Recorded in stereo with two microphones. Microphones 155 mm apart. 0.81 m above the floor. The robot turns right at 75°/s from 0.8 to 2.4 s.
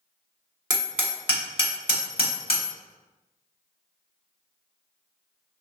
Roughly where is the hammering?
Right.